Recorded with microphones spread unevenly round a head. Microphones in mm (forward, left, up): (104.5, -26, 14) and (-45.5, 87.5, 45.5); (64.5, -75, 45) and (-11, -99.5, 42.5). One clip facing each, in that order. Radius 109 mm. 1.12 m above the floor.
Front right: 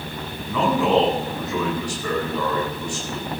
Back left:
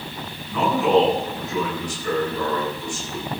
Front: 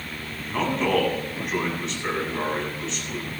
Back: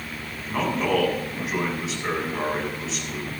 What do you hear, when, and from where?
0.5 s a man speaking: 75° right, 8.5 m